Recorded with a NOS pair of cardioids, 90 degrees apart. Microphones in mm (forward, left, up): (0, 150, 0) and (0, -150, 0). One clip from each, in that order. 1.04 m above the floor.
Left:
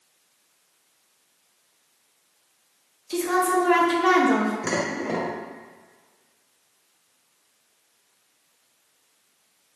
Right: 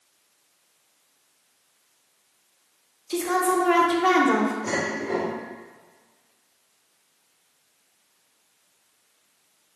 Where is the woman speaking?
5° right, 0.6 m.